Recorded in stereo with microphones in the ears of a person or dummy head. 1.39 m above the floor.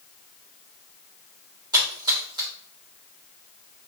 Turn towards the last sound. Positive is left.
turn(degrees=-15)  # may be behind; listen again after turning